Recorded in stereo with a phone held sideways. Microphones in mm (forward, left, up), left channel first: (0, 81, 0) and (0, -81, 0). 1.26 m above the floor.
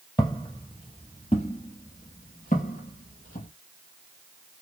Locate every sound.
0.2 s footsteps: 20° left (ahead or behind), 2.0 m; by 3.5 s 55° left (ahead or behind), 2.5 m